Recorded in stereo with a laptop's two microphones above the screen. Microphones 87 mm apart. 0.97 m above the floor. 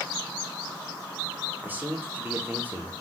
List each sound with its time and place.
1.6 s a man speaking: 25° right (ahead or behind), 2 m